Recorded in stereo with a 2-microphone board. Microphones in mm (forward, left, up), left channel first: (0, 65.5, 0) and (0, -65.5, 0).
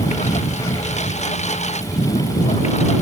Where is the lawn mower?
65° left (ahead or behind); by 3.0 s 60° left (ahead or behind).